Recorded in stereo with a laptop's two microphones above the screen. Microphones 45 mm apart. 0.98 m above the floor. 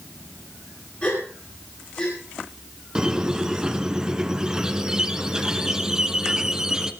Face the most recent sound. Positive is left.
turn(degrees=-15)  # may be behind; listen again after turning